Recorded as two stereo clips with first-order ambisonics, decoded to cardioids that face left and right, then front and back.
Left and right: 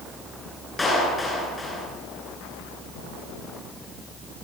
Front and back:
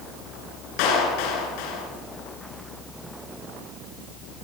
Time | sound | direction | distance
0.8 | a clap | 10° left | 10 m